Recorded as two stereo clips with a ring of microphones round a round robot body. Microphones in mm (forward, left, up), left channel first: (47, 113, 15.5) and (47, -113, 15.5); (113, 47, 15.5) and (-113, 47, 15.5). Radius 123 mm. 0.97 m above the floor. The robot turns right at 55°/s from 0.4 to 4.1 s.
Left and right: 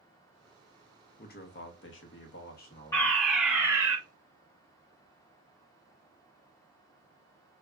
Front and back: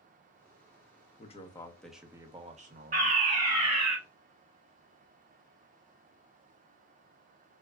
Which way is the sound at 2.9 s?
160° left.